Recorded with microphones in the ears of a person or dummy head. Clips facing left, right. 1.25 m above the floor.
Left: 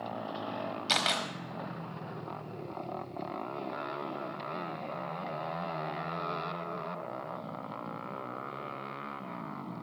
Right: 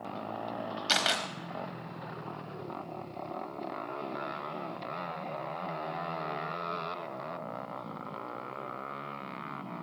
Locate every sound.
0.9 s a camera shutter: 10° right (ahead or behind), 1.3 m